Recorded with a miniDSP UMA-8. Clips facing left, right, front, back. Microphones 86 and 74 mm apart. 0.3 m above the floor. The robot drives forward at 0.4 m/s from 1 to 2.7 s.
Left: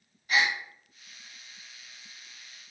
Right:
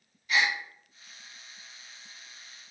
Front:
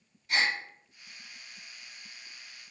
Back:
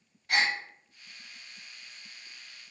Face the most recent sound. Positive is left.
turn(degrees=150)